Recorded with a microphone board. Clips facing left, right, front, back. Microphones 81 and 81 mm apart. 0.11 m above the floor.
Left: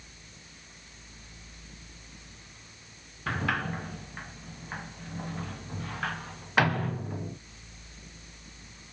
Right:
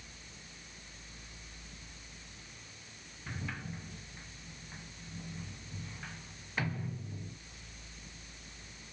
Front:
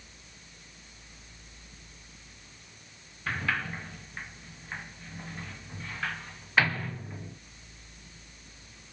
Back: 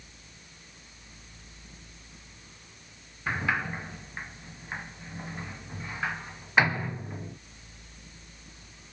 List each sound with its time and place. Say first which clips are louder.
3.3 s a sliding door: left 12 dB, back 2 dB; 110° left